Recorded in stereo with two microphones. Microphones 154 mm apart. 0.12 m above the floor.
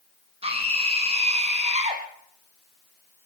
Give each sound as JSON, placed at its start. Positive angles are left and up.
{"t": 0.4, "sound": "a scream", "side_deg": -40, "distance_m": 6.5}